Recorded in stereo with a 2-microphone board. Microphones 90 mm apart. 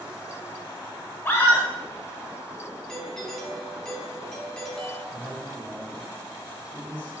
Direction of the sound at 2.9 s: 5° left (ahead or behind).